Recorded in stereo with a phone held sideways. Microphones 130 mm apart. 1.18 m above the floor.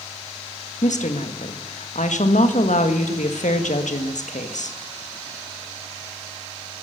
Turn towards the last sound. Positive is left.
turn(degrees=85)